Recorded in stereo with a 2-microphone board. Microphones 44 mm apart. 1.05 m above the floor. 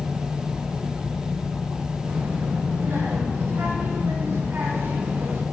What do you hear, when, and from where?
2.1 s a child speaking: 55° right (ahead or behind), 4.5 m; by 5.4 s 60° right (ahead or behind), 2 m